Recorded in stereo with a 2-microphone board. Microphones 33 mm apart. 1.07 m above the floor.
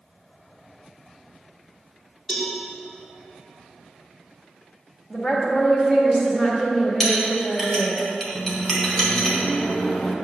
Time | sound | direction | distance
2.3 | a cowbell | 15° left (ahead or behind) | 2 m
5.1 | a woman speaking | 30° left (ahead or behind) | 1.3 m
7.0 | a clink | 10° left (ahead or behind) | 1.4 m
8.3 | a microwave | 35° left (ahead or behind) | 0.6 m